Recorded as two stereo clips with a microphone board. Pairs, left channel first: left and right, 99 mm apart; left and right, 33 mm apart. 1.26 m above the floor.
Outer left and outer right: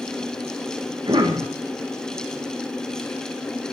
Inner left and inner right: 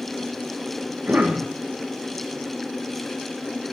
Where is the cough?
55° right (ahead or behind), 1.4 m.